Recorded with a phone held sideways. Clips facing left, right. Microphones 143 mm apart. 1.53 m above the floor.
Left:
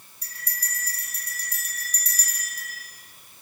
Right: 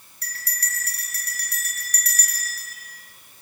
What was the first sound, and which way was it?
A bell, 75° right (ahead or behind).